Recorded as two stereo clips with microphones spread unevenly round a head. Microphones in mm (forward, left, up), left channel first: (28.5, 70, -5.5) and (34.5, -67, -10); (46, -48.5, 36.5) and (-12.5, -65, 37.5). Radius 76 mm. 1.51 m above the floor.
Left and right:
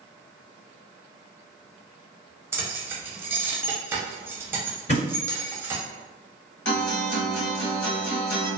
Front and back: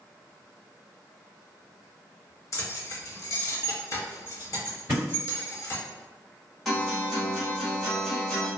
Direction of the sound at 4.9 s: 125° left.